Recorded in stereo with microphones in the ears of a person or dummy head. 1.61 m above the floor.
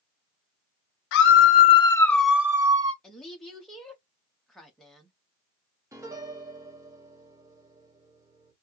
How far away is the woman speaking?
About 1.1 m.